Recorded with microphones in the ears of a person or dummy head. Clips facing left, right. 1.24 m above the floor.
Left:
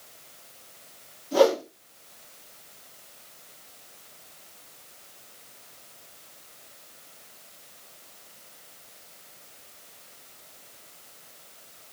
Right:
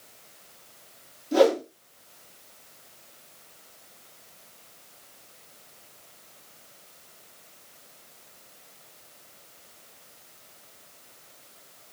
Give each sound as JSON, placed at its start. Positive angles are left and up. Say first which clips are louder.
{"t": 1.3, "sound": "a whoosh", "louder": "even", "side_deg": -25, "distance_m": 3.0}